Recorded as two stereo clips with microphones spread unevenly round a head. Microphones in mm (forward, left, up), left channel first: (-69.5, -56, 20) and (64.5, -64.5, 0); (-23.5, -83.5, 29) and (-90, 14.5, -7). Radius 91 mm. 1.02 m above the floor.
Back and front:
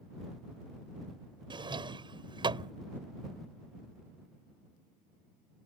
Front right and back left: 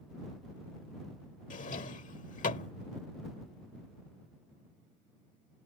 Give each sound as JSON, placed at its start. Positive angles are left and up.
{"t": 1.5, "sound": "a drawer", "azimuth_deg": -60}